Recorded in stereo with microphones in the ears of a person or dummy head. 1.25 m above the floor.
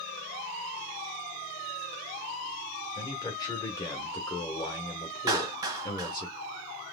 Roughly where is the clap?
Centre.